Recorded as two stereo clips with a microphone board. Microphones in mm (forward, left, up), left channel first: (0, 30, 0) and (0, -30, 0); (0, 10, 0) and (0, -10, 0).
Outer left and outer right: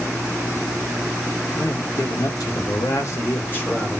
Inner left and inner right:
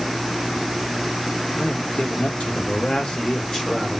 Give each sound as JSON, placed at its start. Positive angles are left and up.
{"t": 1.5, "sound": "a man speaking", "side_deg": 65, "distance_m": 1.2}